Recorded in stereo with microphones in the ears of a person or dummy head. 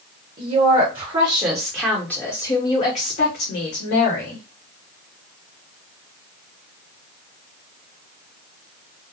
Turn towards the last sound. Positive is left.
turn(degrees=65)  # may be behind; listen again after turning